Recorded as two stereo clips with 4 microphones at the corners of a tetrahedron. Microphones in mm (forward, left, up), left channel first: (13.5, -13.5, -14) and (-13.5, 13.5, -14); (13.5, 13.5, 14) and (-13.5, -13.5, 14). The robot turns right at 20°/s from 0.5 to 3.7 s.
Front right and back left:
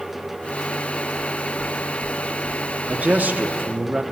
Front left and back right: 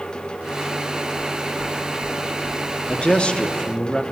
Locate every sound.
1.1 s knocking: 30° right, 2.5 m; by 3.0 s 10° left, 2.5 m
2.9 s a man speaking: 95° left, 0.9 m; by 4.0 s 115° left, 0.9 m